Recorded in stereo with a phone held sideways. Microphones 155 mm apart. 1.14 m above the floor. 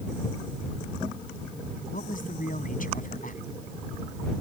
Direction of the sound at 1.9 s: 65° left (ahead or behind).